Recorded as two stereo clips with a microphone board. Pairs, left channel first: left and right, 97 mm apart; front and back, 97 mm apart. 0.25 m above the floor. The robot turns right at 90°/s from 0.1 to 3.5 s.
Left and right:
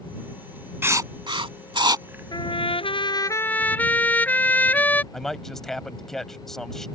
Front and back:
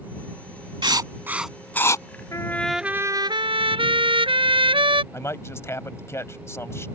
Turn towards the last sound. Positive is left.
turn(degrees=10)